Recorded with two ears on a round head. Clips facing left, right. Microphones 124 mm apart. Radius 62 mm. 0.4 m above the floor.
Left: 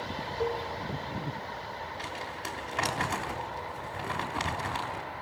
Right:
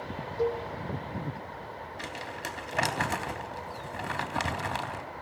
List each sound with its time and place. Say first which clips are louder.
0.4 s a cowbell: right 3 dB; 55° right (ahead or behind), 6 m
2.0 s crumpling: even; 55° right (ahead or behind), 3.5 m